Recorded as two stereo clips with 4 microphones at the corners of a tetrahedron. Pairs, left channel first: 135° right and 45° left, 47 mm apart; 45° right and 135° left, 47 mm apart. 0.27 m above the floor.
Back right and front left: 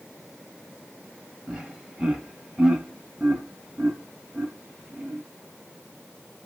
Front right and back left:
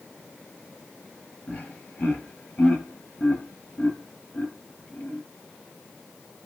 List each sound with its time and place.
1.5 s laughter: 20° right, 1.1 m